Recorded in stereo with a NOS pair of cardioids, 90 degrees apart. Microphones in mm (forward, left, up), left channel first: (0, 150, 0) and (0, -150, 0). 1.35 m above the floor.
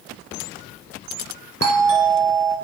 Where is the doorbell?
55° right, 1.1 m.